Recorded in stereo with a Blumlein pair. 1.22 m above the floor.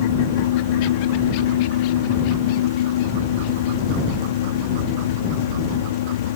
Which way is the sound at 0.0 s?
55° left.